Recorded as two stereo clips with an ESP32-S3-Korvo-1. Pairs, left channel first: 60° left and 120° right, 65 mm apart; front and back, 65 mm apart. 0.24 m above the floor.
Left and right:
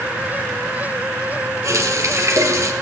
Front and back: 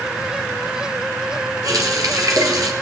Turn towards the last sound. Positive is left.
turn(degrees=-155)